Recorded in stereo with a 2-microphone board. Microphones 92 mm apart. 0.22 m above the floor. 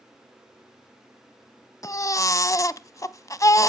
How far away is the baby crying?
About 0.6 m.